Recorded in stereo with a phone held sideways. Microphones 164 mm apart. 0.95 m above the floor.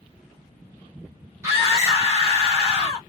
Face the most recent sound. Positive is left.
turn(degrees=-15)  # may be behind; listen again after turning